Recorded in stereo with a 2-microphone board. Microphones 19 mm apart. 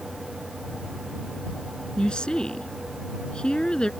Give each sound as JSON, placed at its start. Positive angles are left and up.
{"t": 2.0, "sound": "a woman speaking", "side_deg": 50}